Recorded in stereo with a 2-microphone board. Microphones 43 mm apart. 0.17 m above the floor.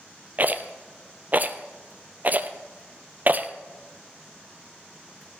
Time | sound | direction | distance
0.4 | a rattle | 40° right (ahead or behind) | 0.8 m